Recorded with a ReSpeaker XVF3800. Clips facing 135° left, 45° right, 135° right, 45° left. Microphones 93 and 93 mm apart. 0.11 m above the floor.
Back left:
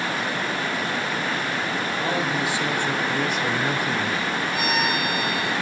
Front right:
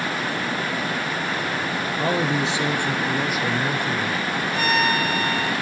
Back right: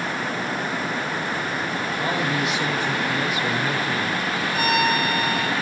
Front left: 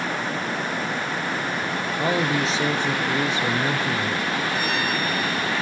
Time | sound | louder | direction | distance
2.0 | a man speaking | front right 4 dB, front left 3 dB | straight ahead | 1.8 m
4.5 | a violin | front right 5 dB, back right 4 dB | 145° right | 2.5 m